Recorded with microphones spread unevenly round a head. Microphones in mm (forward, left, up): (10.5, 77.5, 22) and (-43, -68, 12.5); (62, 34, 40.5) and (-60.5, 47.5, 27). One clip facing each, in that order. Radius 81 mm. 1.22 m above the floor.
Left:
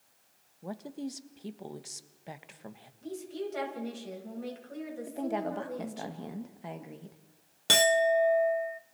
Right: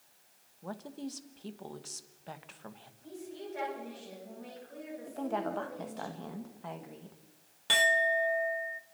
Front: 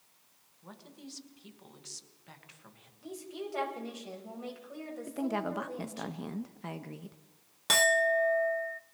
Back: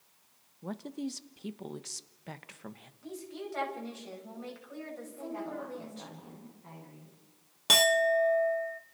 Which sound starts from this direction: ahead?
A woman speaking, at 5.1 s.